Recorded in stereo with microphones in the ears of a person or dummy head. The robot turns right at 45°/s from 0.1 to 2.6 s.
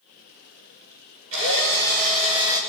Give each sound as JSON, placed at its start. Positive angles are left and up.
{"t": 1.3, "sound": "a drill", "azimuth_deg": -80, "distance_m": 5.5}